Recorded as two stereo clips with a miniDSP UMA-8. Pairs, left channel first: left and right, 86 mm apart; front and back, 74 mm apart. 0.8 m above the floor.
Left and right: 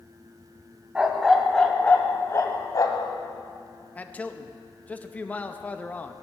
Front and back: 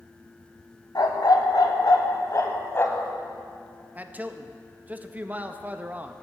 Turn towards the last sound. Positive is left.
turn(degrees=140)